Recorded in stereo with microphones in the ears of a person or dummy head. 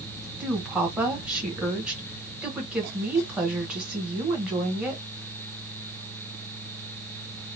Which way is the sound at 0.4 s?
5° right (ahead or behind).